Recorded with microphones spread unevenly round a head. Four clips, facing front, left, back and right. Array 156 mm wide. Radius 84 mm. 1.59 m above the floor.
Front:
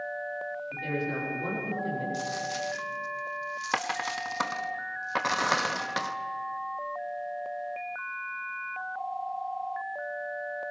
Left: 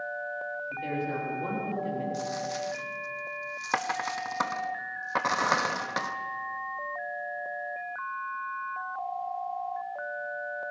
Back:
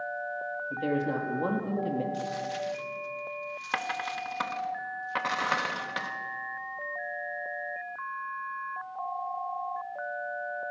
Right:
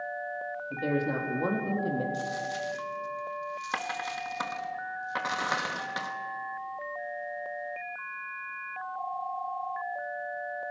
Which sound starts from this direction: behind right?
A man speaking, at 0.7 s.